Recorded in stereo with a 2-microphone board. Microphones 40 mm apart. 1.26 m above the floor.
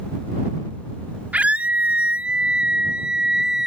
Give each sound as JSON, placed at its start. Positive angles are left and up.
{"t": 1.3, "sound": "a scream", "side_deg": -35}